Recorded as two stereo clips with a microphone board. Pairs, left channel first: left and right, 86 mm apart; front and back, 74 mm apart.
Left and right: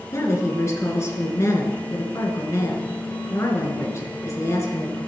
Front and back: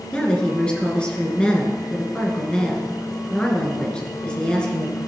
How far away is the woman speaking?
About 2 m.